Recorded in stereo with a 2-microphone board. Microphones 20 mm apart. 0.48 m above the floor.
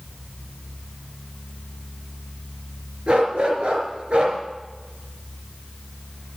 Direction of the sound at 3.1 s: 50° right (ahead or behind).